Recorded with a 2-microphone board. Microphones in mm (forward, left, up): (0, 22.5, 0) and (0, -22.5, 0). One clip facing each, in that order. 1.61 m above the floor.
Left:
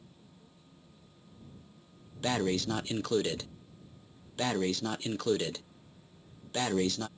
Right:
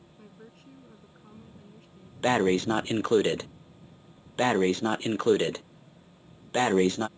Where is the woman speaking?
70° right (ahead or behind).